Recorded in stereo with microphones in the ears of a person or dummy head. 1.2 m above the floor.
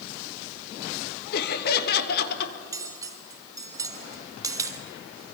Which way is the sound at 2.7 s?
20° right (ahead or behind).